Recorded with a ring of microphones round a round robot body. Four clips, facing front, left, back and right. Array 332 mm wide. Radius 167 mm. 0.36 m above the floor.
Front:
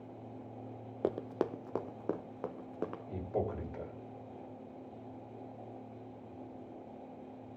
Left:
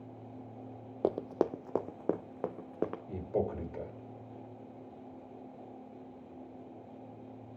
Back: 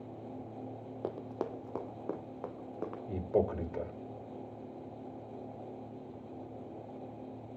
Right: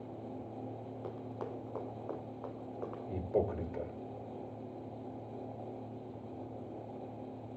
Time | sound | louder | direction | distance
1.0 | running footsteps | left 13 dB, front 4 dB | 70° left | 0.5 m
3.1 | a man speaking | right 5 dB, back 7 dB | 175° right | 1.8 m